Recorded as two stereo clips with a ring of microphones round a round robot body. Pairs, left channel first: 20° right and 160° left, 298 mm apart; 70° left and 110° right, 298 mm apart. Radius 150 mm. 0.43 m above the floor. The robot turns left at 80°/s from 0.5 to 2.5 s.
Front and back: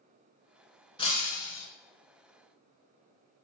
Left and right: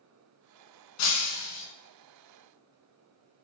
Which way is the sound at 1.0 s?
50° left.